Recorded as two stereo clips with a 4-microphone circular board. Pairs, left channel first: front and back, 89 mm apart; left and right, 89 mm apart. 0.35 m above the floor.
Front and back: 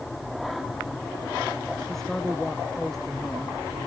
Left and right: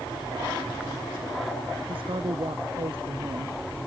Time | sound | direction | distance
1.9 | a woman speaking | 85° right | ?